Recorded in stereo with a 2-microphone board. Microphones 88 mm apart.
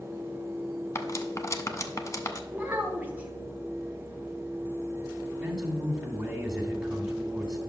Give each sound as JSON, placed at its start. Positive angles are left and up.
{"t": 0.9, "sound": "cutlery clinking", "side_deg": 35, "distance_m": 0.8}
{"t": 2.5, "sound": "a child speaking", "side_deg": -20, "distance_m": 1.1}
{"t": 5.4, "sound": "a man speaking", "side_deg": -10, "distance_m": 1.8}